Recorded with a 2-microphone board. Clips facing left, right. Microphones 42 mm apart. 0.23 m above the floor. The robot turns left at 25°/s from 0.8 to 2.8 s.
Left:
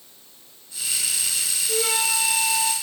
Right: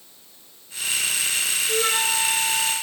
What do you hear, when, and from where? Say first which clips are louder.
1.7 s a flute: right 1 dB; 30° right (ahead or behind), 3 m; by 2.7 s 5° right (ahead or behind), 3 m